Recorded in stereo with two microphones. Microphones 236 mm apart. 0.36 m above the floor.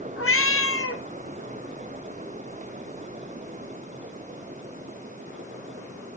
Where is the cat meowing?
70° left (ahead or behind), 1.3 m.